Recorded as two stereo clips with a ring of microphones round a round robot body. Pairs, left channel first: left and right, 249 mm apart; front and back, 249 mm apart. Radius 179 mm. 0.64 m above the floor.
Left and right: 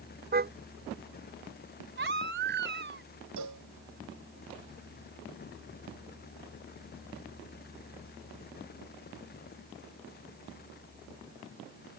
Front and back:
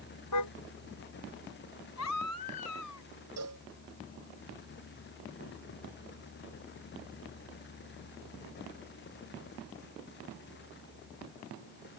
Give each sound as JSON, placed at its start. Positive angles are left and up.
{"t": 0.3, "sound": "a car horn", "azimuth_deg": -40}
{"t": 2.0, "sound": "a baby crying", "azimuth_deg": -45}
{"t": 3.4, "sound": "a cowbell", "azimuth_deg": -130}